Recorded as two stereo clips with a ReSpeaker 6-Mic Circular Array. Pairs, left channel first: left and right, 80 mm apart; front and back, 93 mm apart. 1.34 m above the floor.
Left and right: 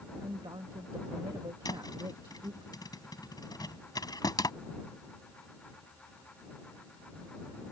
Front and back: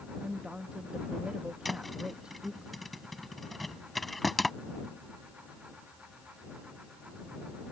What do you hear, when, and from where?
0.2 s a woman speaking: 100° right
1.6 s a thud: 90° left